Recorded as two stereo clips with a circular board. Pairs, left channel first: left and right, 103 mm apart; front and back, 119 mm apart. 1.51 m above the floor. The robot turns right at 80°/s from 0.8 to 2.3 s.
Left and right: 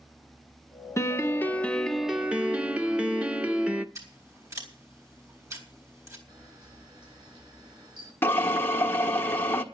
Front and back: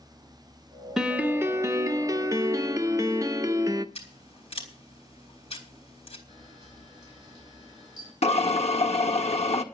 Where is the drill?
20° left, 1.4 m.